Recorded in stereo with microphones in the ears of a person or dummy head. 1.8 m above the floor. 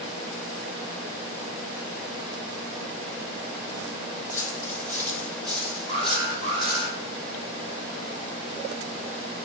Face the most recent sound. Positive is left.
turn(degrees=-35)  # may be behind; listen again after turning